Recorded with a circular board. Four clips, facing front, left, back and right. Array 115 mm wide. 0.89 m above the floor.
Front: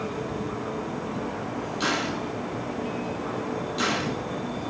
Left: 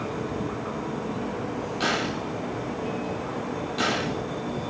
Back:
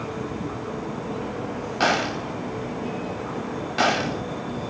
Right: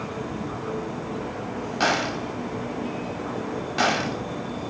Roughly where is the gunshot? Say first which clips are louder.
Right 4 dB, back 6 dB; behind right.